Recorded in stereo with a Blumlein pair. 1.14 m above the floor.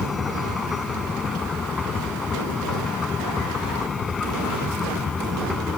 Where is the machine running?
15° left.